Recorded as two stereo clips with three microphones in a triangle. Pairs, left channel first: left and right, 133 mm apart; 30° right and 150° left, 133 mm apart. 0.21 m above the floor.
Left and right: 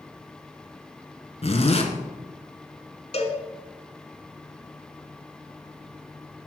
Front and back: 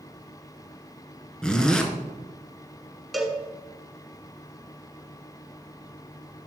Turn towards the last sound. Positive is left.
turn(degrees=60)